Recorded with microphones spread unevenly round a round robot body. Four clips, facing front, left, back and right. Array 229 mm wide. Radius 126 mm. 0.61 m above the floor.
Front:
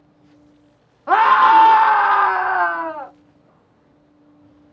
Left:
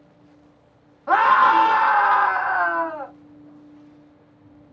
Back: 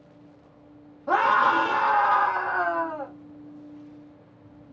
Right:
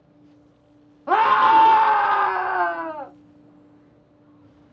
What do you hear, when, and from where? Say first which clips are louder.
1.1 s a scream: even, front 9 dB; 70° right, 0.6 m